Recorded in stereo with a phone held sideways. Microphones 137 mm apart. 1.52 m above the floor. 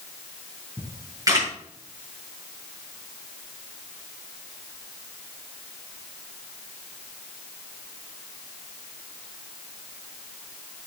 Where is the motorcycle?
I don't hear a motorcycle.